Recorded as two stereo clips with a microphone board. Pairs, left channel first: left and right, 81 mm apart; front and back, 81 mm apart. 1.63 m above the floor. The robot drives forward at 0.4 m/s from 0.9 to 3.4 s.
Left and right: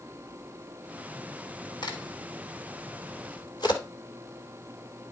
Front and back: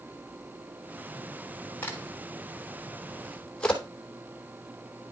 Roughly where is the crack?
Ahead left.